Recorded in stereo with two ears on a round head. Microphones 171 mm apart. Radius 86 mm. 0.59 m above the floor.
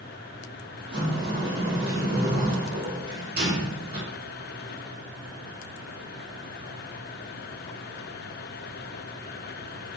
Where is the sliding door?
50° right (ahead or behind), 1.5 m.